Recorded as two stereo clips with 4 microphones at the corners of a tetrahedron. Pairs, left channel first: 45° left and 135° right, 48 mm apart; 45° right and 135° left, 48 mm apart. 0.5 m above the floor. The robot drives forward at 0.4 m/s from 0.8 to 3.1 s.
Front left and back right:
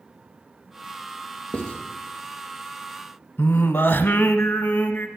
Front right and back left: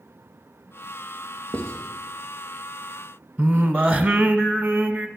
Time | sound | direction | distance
1.5 | writing | 110° left | 2.5 m
3.4 | singing | 80° left | 0.7 m